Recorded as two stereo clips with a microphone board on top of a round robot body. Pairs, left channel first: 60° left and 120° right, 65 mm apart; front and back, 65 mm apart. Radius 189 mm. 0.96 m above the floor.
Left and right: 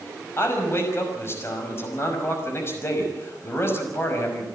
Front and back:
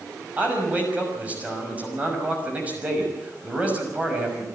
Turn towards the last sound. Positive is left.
turn(degrees=110)